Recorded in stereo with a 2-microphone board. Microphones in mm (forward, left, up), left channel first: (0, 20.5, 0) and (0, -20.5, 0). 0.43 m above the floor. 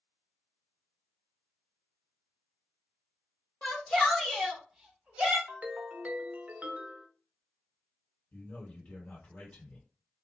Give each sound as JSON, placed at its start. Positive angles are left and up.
{"t": 3.6, "sound": "a shout", "side_deg": 25, "distance_m": 1.2}
{"t": 5.5, "sound": "a ringtone", "side_deg": -40, "distance_m": 0.6}
{"t": 8.3, "sound": "a man speaking", "side_deg": 40, "distance_m": 1.9}